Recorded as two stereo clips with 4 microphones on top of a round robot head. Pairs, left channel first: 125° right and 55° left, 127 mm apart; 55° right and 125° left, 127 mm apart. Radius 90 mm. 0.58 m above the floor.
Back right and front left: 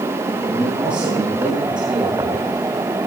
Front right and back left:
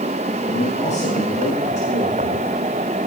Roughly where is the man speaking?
Ahead right.